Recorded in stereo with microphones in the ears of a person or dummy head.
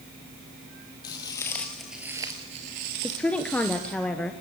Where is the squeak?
No squeak in this recording.